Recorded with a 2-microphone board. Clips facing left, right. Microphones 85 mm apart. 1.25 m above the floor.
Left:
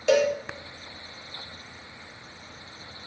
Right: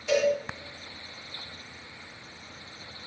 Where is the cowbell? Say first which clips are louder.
Left 3 dB; 70° left (ahead or behind), 2.0 m.